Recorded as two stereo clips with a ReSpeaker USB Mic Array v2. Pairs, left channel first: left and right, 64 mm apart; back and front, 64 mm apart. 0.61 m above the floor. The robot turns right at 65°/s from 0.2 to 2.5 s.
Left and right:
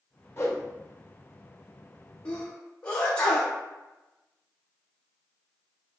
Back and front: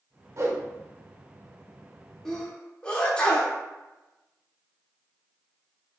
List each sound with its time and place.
0.4 s a whoosh: 40° left, 0.7 m; by 0.6 s 55° left, 0.7 m
2.2 s a sneeze: 120° left, 0.6 m; by 3.5 s 135° left, 0.6 m